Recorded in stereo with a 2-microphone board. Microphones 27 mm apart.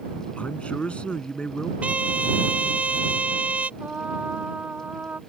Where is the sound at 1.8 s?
50° right (ahead or behind).